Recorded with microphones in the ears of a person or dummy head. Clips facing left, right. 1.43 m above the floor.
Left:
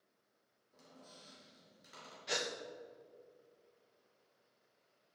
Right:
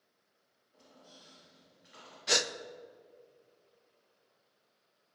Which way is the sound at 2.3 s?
55° right (ahead or behind).